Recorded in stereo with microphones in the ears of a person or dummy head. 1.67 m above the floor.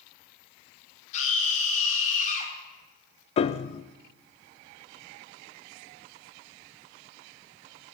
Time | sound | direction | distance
1.1 | a scream | 45° left (ahead or behind) | 4 m
3.4 | a piano | 35° left (ahead or behind) | 0.5 m